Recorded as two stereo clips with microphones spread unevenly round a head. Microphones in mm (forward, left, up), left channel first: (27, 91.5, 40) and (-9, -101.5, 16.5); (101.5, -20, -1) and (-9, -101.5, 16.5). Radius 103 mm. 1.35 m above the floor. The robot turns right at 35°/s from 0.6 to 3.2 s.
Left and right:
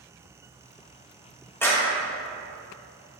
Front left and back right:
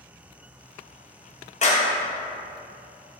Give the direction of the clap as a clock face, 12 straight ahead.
12 o'clock.